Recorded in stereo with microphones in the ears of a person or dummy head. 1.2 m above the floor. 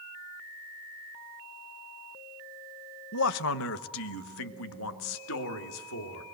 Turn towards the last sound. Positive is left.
turn(degrees=85)